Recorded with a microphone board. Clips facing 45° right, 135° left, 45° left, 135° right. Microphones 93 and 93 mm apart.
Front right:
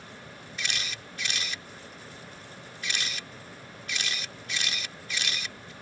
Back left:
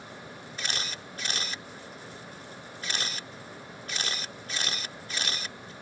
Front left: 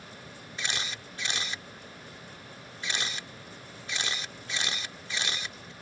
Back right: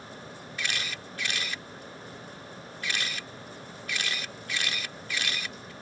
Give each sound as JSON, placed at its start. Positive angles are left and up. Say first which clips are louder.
{"t": 0.6, "sound": "a camera shutter", "louder": "even, back right 1 dB", "azimuth_deg": 100}